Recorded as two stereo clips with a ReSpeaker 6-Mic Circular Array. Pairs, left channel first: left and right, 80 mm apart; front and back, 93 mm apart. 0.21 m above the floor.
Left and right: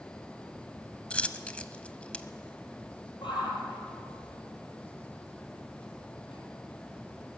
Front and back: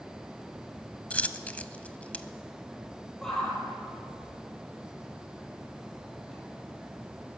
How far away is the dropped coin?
About 0.6 m.